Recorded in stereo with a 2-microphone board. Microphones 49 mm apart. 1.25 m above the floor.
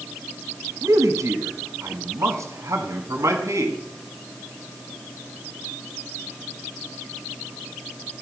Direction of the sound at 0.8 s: 85° right.